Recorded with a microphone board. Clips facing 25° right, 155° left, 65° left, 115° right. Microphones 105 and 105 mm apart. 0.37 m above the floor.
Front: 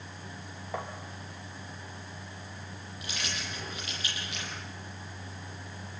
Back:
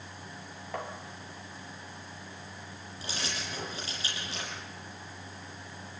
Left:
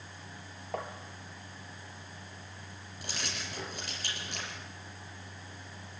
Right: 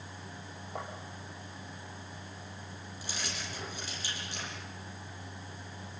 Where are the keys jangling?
100° left, 7.5 m.